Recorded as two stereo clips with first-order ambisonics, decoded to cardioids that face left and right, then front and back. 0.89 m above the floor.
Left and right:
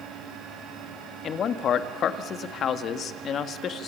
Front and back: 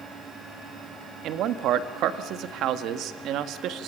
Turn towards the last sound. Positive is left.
turn(degrees=145)